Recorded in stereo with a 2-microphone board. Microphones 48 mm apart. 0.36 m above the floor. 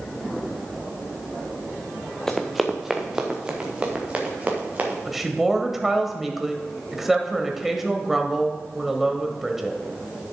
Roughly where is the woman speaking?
Centre.